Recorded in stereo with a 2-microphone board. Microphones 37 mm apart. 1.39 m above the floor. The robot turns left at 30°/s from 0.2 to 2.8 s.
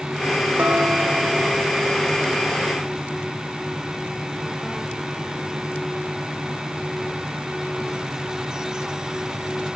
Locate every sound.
0.6 s dishes clattering: 120° right, 1.6 m; by 1.9 s 160° right, 1.6 m